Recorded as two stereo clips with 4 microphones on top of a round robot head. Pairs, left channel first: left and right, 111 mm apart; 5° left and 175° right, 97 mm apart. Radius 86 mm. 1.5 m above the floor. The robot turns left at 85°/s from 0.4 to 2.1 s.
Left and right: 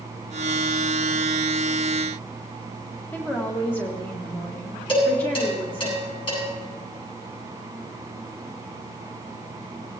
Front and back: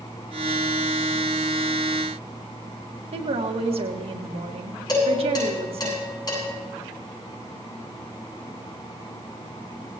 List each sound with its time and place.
3.1 s a woman speaking: 165° left, 1.6 m
4.9 s dishes clattering: 55° left, 8.5 m